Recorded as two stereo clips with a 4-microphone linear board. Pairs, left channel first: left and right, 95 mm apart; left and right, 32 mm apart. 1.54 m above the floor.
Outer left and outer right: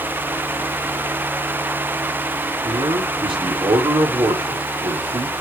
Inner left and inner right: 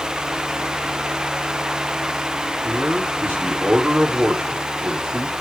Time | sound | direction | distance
2.6 | a man speaking | 75° right (ahead or behind) | 5 m